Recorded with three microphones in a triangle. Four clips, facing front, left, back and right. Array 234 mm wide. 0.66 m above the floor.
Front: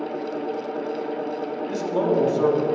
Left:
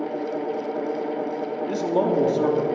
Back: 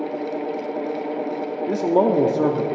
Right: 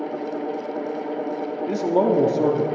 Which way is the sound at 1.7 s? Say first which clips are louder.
Right 3 dB, back 5 dB; 165° right.